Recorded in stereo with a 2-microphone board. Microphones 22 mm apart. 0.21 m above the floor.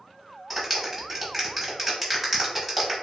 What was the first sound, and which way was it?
A clap, 5° right (ahead or behind).